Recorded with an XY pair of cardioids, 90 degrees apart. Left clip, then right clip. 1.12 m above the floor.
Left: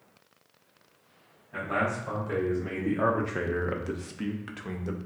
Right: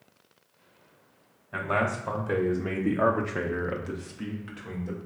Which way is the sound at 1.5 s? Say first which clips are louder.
Right 2 dB; 70° right.